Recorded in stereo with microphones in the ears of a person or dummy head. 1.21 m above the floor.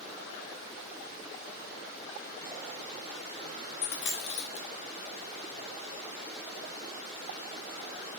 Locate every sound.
3.8 s a dropped coin: 60° left (ahead or behind), 0.9 m